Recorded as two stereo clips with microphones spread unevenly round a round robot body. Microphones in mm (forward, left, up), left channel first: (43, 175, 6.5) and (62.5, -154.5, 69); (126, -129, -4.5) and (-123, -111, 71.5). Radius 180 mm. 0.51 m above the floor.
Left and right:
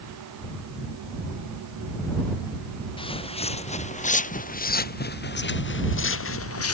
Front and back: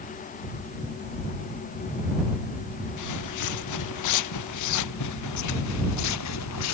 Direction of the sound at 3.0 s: 15° left.